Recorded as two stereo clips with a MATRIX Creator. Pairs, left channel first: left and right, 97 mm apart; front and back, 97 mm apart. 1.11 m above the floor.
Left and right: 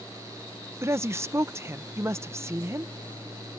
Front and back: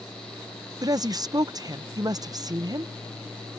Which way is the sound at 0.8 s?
145° right.